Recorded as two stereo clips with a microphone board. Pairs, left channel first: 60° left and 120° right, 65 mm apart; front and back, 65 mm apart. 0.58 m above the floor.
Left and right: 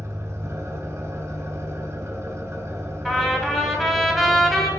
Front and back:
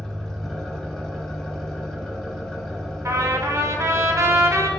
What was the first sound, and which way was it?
An engine running, 80° right.